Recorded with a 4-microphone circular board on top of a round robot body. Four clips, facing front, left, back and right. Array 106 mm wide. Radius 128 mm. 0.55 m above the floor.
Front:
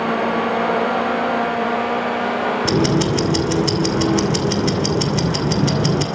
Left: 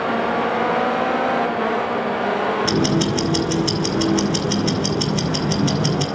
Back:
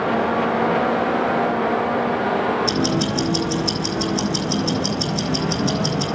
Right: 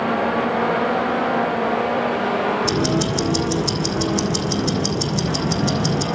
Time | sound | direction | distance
2.6 | ticking | 15° left | 2.5 m